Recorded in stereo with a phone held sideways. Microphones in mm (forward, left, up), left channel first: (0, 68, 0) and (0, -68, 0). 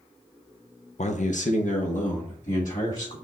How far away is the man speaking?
About 0.5 m.